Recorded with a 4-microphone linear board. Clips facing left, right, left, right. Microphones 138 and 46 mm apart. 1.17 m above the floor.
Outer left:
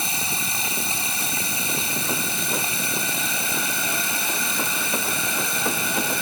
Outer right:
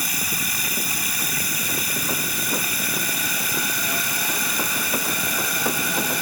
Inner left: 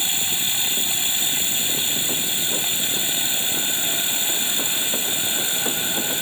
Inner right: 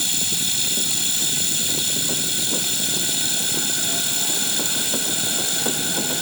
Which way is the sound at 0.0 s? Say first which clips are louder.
Outer left 1 dB, inner left 1 dB; 25° left (ahead or behind).